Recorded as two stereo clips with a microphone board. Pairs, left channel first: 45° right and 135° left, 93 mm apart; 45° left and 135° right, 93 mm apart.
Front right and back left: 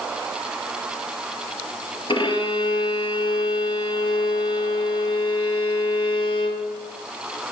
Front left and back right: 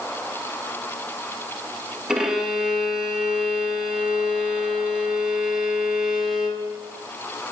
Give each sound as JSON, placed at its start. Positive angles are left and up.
{"t": 2.1, "sound": "a violin", "azimuth_deg": -50, "distance_m": 2.0}